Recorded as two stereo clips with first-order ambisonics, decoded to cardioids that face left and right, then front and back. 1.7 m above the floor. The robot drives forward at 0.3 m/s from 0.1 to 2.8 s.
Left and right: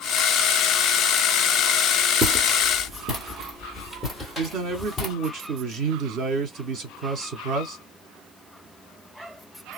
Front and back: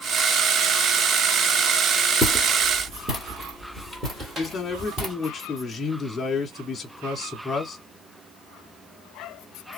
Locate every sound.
2.2 s footsteps: 90° right, 2.0 m; by 5.1 s 155° left, 1.9 m
4.4 s a man speaking: 70° right, 0.9 m